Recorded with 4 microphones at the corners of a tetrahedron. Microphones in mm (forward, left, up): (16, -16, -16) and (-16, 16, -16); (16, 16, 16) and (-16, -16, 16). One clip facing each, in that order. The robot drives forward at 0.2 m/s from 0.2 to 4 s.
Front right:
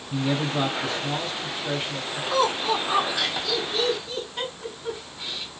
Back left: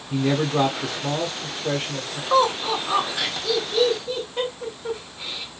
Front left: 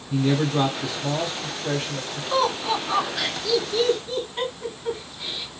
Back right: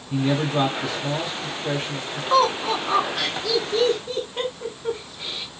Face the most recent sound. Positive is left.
turn(degrees=-175)